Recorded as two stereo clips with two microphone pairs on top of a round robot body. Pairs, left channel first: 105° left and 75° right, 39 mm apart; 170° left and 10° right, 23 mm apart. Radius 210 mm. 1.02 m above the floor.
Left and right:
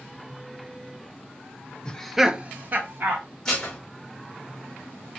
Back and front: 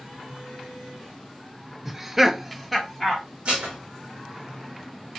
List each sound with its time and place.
1.9 s laughter: 60° left, 0.7 m; by 3.2 s 100° right, 1.0 m
3.5 s dishes clattering: 25° left, 1.0 m